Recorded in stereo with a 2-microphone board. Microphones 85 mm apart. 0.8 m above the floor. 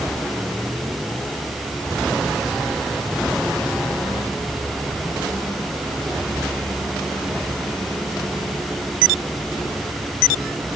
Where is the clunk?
I don't hear a clunk.